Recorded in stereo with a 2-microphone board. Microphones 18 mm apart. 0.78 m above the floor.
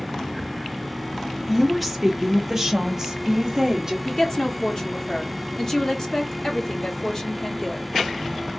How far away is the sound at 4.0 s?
About 1.3 m.